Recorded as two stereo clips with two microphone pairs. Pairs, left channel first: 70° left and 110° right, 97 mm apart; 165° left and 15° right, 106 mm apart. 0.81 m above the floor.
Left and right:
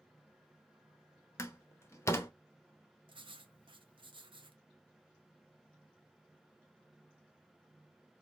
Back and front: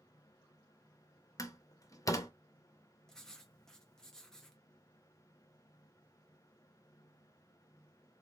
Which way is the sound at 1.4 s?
120° left.